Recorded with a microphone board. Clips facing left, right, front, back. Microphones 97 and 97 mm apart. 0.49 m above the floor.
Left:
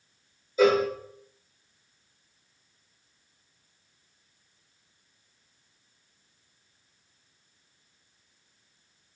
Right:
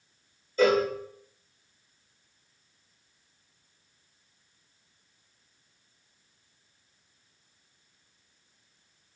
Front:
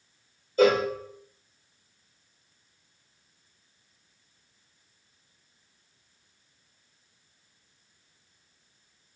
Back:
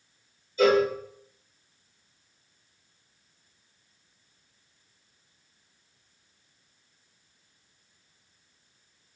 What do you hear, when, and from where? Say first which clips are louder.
0.6 s a cowbell: left 1 dB, even; 10° left, 1.6 m